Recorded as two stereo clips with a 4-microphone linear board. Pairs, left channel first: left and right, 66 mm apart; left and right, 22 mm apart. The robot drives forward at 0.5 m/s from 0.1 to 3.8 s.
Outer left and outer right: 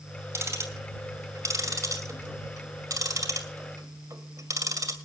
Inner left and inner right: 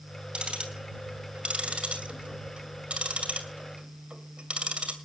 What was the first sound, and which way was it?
Ticking, 45° right (ahead or behind).